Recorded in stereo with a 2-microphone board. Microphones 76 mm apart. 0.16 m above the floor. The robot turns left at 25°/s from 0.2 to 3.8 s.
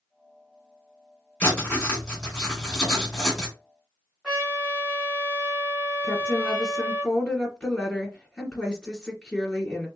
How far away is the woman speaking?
About 1.8 m.